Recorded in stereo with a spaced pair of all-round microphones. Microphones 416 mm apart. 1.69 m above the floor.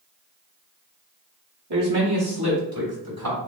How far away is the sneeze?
I don't hear a sneeze.